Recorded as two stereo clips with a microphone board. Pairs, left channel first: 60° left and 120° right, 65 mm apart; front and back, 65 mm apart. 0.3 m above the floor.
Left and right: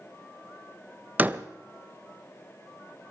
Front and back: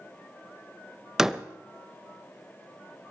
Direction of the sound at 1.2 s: 110° right.